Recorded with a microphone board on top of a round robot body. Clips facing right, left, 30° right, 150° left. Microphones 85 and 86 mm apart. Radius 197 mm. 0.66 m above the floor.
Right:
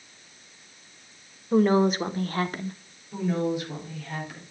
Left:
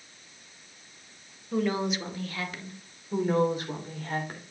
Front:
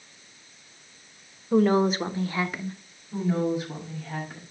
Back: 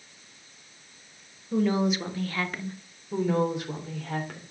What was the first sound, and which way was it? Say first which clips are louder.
A woman speaking: right 8 dB, front 4 dB; 50° right.